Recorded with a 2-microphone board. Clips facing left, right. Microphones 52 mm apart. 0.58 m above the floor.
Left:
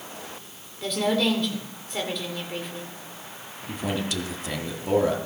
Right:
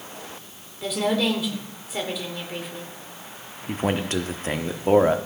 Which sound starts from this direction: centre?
A woman speaking, at 0.8 s.